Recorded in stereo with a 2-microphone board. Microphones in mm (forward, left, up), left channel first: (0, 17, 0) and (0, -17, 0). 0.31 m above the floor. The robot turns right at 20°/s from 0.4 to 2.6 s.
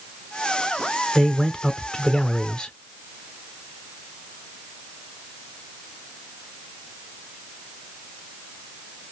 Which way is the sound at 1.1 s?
15° left (ahead or behind).